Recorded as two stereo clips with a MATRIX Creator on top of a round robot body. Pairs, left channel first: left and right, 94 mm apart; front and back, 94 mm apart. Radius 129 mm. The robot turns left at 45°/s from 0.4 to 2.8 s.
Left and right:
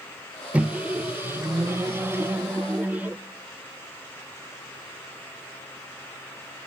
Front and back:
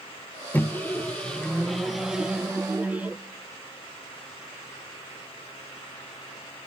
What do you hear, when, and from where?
0.5 s a microwave: 30° right, 0.5 m; by 3.2 s 135° right, 0.5 m